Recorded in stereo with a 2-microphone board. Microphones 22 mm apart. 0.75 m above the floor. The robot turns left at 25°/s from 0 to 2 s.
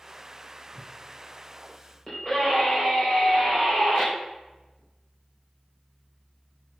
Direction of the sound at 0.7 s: 30° right (ahead or behind).